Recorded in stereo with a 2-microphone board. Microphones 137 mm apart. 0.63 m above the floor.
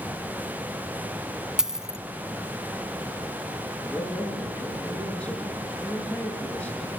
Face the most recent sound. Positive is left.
turn(degrees=10)  # may be behind; listen again after turning